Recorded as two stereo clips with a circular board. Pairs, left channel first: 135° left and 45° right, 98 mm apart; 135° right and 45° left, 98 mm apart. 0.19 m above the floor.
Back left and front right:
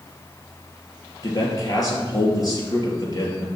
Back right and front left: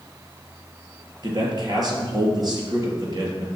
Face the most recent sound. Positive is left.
turn(degrees=85)